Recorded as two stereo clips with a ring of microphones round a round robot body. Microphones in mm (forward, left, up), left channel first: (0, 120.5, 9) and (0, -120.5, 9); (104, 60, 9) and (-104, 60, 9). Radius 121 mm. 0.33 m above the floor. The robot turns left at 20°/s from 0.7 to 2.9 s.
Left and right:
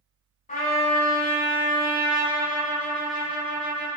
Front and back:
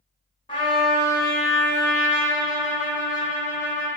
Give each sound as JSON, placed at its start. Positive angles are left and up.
{"t": 0.5, "sound": "a trumpet", "azimuth_deg": 50, "distance_m": 0.9}